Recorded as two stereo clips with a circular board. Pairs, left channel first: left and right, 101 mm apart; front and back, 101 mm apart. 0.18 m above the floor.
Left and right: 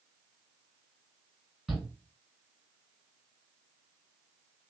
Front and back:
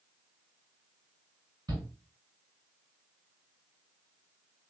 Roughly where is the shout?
Behind.